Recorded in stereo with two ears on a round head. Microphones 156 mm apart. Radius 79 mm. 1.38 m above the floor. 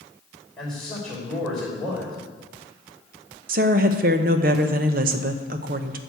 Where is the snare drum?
I don't hear a snare drum.